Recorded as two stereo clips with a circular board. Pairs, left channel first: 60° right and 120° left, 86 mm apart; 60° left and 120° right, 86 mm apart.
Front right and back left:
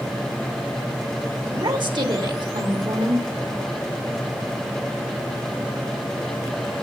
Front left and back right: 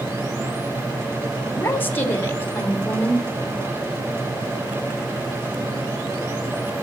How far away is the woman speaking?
About 3 m.